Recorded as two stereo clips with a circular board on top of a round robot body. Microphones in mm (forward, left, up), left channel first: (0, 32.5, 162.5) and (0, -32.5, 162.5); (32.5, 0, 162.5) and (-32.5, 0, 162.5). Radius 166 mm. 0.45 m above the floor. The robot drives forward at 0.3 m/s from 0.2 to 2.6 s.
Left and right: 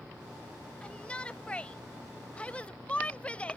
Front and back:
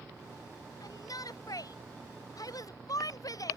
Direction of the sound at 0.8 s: 15° left.